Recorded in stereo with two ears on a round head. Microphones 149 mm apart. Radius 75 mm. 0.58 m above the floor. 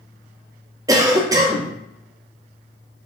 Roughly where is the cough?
Right.